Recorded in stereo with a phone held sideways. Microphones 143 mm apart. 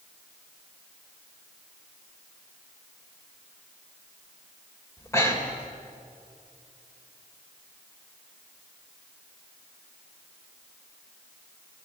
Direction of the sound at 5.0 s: 20° left (ahead or behind).